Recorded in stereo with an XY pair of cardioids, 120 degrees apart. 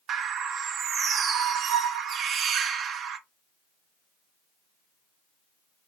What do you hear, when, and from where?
0.1 s a bird: 55° right, 0.6 m